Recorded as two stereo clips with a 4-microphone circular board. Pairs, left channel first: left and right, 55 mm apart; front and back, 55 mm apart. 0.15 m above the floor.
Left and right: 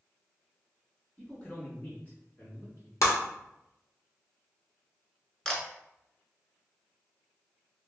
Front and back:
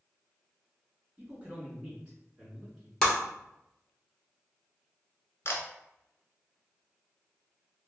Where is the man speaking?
150° left, 1.5 m; by 2.9 s 105° left, 2 m.